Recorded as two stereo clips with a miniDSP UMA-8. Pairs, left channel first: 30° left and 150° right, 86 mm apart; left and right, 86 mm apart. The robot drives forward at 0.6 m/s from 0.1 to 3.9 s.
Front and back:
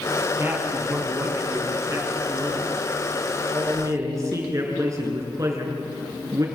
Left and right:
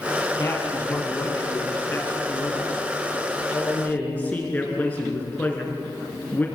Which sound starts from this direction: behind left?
A man speaking, at 0.4 s.